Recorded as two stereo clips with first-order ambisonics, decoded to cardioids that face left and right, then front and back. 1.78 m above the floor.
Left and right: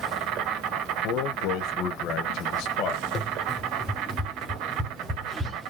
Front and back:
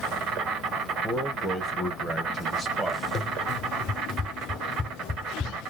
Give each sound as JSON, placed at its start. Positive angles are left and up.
{"t": 0.0, "sound": "an insect", "azimuth_deg": -125, "distance_m": 1.2}
{"t": 1.0, "sound": "a man speaking", "azimuth_deg": 95, "distance_m": 1.1}
{"t": 3.1, "sound": "running footsteps", "azimuth_deg": 45, "distance_m": 2.0}